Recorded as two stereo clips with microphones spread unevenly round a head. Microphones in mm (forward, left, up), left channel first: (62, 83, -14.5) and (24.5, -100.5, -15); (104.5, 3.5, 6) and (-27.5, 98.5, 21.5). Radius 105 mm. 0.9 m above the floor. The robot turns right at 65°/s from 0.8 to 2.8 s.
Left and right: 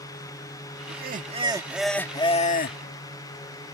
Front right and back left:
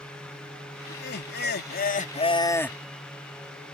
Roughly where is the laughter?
Right.